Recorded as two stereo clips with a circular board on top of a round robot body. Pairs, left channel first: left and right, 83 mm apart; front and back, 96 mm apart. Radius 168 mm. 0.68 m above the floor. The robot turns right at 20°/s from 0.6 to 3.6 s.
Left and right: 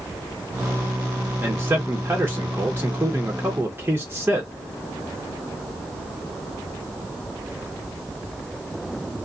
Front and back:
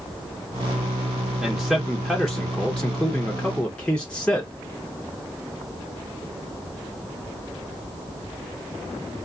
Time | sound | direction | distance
1.4 | a man speaking | 105° right | 0.9 m